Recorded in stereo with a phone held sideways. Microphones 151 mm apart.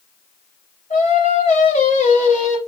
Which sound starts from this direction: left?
Singing, at 0.9 s.